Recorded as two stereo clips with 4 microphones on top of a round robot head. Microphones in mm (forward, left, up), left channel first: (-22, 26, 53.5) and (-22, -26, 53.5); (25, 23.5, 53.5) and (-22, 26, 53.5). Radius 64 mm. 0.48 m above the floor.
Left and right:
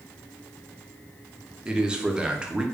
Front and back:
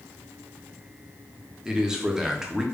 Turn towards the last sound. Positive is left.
turn(degrees=-130)